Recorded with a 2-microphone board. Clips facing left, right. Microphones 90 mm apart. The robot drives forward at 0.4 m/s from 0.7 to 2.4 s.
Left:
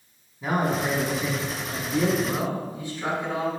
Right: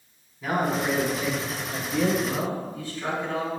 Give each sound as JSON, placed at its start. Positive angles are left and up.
{"t": 0.4, "sound": "a man speaking", "side_deg": 25, "distance_m": 1.1}
{"t": 2.2, "sound": "a man speaking", "side_deg": 15, "distance_m": 1.1}